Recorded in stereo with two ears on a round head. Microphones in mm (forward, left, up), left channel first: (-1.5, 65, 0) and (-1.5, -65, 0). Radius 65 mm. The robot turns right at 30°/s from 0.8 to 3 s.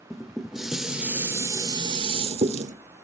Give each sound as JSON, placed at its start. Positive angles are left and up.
{"t": 0.1, "sound": "dishes clattering", "azimuth_deg": -175, "distance_m": 0.9}